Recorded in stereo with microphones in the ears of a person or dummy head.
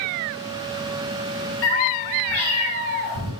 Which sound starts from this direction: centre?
A cat meowing, at 1.6 s.